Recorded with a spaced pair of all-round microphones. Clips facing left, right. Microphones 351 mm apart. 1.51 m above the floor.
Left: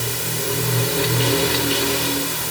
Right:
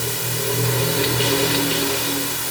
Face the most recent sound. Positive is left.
No sound to turn to.